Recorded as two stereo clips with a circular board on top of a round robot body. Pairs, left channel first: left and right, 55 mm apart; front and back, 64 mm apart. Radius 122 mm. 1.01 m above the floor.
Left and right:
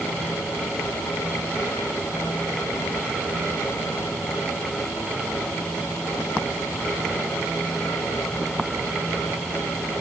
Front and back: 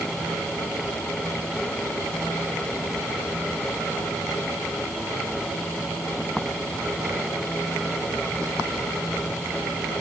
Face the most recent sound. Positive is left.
No sound to turn to.